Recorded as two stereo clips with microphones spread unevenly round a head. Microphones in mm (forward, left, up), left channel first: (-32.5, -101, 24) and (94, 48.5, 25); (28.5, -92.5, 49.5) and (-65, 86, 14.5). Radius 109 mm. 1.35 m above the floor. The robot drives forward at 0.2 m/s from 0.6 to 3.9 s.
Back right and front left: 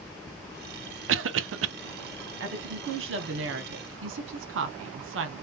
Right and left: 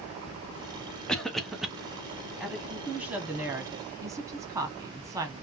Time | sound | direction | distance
1.1 | a cough | 25° left | 0.6 m
2.4 | a woman speaking | 35° left | 0.9 m